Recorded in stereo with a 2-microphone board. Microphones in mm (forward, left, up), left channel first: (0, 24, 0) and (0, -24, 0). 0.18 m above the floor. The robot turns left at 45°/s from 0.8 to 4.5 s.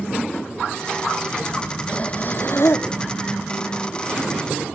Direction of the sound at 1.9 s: 155° left.